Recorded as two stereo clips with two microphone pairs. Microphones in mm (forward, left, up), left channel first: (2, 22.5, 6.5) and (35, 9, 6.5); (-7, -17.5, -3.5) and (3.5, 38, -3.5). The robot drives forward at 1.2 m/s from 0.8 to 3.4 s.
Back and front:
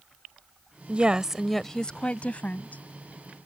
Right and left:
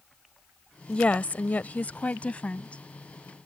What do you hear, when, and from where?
0.9 s a woman speaking: 40° right; by 2.8 s 165° right